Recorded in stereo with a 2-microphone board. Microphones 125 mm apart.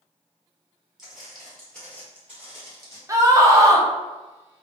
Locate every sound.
1.0 s footsteps: 5° right (ahead or behind), 1.6 m; by 3.0 s 25° left (ahead or behind), 1.8 m
3.1 s a scream: 25° right (ahead or behind), 0.6 m